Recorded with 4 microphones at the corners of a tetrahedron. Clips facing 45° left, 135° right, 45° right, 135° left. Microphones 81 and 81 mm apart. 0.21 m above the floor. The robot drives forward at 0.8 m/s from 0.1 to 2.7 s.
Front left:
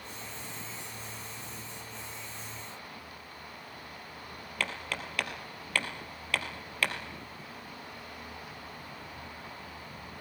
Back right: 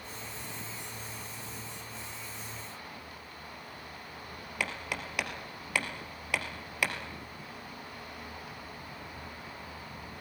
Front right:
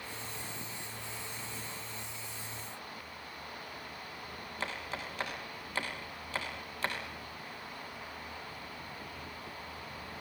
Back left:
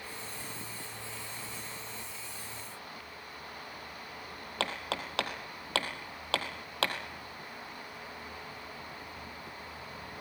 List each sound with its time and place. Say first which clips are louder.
4.6 s hammering: even, back left 5 dB; 150° left, 3 m